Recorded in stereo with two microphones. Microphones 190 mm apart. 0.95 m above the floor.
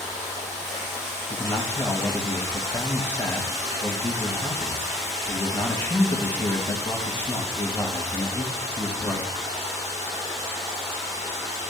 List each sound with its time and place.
0.0 s running water: 35° right (ahead or behind), 5.5 m
1.3 s a man speaking: 10° left (ahead or behind), 1.4 m